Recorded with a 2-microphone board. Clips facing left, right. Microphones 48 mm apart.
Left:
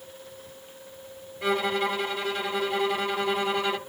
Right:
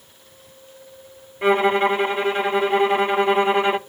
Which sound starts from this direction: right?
A violin, at 1.4 s.